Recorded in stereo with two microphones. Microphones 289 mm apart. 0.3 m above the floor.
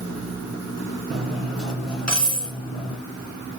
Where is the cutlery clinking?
65° right (ahead or behind), 1.7 m.